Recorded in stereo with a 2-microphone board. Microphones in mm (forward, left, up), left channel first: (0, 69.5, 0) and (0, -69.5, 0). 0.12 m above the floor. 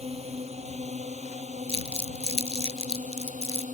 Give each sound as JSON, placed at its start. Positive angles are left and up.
{"t": 0.0, "sound": "a drone", "side_deg": -50}
{"t": 1.7, "sound": "crumpling", "side_deg": -45}